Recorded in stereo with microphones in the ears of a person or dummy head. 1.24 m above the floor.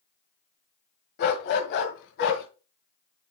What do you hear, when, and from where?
1.2 s a dog barking: 55° left (ahead or behind), 1.8 m; by 2.5 s 65° left (ahead or behind), 2.5 m